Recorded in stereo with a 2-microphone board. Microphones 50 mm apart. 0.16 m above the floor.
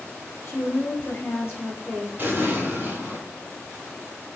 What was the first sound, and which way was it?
A woman speaking, 40° left (ahead or behind).